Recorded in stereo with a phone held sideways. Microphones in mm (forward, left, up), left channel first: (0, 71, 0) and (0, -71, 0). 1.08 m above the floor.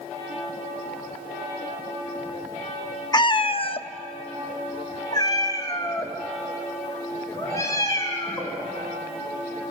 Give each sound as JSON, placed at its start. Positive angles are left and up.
{"t": 3.1, "sound": "a cat meowing", "side_deg": 30, "distance_m": 0.6}